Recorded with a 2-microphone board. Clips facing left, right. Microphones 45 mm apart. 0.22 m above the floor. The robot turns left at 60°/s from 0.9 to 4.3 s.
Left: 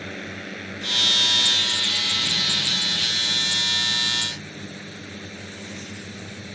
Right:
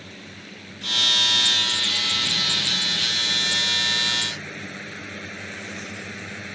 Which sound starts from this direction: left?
A drone, at 0.0 s.